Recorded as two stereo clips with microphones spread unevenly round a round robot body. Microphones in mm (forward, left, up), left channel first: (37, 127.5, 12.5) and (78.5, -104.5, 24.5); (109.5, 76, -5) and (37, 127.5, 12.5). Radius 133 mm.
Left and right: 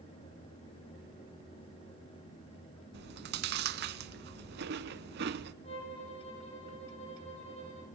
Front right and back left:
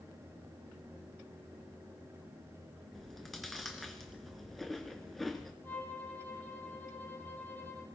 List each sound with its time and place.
2.9 s chewing: 130° right, 0.7 m
5.6 s a violin: 35° left, 6 m